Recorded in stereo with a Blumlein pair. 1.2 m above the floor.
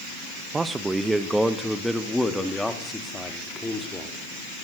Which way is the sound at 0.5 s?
15° right.